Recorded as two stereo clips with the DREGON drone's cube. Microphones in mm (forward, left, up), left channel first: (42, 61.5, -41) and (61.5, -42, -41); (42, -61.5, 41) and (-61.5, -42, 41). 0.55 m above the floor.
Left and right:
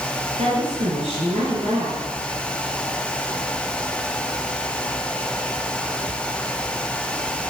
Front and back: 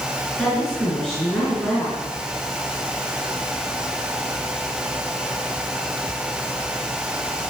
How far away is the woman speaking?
About 6.5 m.